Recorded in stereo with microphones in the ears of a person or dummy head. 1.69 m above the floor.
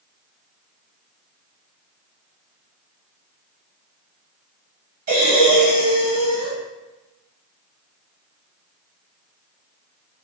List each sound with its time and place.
5.1 s breathing: 45° right (ahead or behind), 1.7 m